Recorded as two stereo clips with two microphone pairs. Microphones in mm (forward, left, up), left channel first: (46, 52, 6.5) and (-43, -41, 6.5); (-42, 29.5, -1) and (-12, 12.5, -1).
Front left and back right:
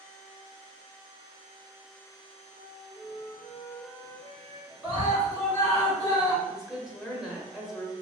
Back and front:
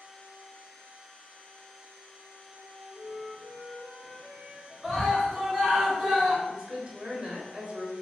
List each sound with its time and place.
2.5 s a flute: 135° left, 1.2 m
4.8 s a scream: 110° right, 1.8 m
6.5 s a woman speaking: 50° right, 1.0 m